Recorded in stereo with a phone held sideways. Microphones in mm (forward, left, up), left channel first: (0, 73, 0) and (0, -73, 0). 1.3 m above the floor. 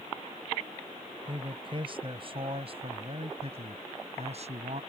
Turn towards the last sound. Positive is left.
turn(degrees=-55)  # may be behind; listen again after turning